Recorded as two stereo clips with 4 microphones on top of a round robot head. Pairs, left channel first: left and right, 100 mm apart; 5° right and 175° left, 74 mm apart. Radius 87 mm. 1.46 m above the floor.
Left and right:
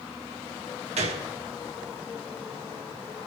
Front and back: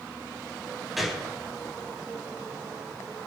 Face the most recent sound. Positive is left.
turn(degrees=-100)